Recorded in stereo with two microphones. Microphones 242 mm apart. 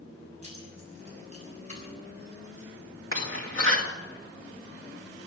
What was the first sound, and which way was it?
Keys jangling, 25° right (ahead or behind).